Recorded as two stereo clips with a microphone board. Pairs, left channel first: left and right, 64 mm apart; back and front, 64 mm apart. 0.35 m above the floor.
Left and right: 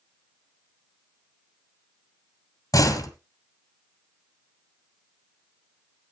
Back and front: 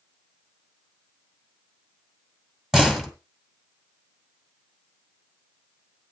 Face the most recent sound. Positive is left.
turn(degrees=85)